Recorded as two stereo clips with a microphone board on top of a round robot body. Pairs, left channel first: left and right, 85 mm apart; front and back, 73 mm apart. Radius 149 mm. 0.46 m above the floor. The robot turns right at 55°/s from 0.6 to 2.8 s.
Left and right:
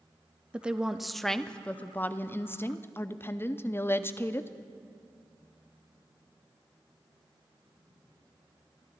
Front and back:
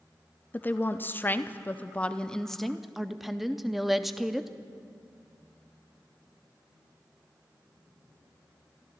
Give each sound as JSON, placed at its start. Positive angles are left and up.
{"t": 0.5, "sound": "a woman speaking", "azimuth_deg": -25, "distance_m": 0.8}